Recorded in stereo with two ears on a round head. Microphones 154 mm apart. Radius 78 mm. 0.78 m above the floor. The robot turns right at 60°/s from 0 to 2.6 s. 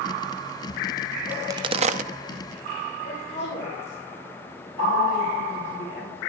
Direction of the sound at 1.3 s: 10° right (ahead or behind).